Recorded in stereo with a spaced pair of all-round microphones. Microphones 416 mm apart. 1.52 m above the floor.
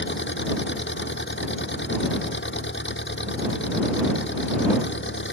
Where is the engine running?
25° left (ahead or behind).